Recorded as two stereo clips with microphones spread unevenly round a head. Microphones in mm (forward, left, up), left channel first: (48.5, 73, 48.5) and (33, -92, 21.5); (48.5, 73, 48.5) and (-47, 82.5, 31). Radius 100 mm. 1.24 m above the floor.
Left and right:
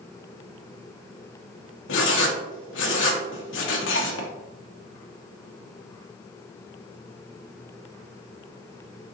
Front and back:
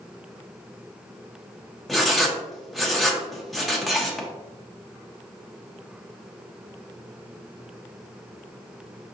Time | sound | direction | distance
1.9 | writing | 85° left | 1.1 m